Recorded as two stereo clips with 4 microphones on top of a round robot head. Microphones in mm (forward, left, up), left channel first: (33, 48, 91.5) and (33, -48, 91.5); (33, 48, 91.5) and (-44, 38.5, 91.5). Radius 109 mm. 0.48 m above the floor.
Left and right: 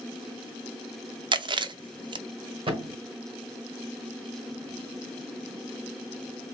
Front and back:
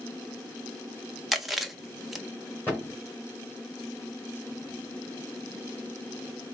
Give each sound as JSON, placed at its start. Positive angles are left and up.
{"t": 1.3, "sound": "chewing", "azimuth_deg": -85, "distance_m": 0.5}
{"t": 2.7, "sound": "a thud", "azimuth_deg": -60, "distance_m": 1.9}